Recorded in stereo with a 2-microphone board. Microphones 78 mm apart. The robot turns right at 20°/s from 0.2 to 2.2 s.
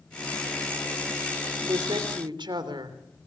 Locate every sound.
1.7 s a woman speaking: 80° right, 3 m